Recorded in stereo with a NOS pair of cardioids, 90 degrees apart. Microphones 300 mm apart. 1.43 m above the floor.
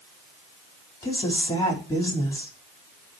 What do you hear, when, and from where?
1.0 s a woman speaking: 10° left, 4.5 m